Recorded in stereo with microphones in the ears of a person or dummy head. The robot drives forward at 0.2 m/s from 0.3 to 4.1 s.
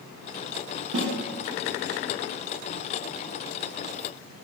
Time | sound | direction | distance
0.9 | a snare drum | 70° right (ahead or behind) | 1.0 m